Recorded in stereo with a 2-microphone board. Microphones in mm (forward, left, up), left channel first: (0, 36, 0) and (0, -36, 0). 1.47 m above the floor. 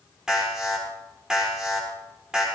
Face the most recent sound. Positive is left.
turn(degrees=-10)  # may be behind; listen again after turning